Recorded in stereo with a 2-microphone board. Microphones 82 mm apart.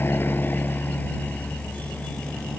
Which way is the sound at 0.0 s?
25° left (ahead or behind).